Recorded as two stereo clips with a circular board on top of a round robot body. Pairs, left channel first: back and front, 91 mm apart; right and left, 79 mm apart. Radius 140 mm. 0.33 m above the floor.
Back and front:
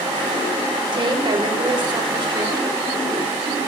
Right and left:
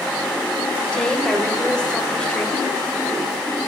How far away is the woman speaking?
About 1.7 m.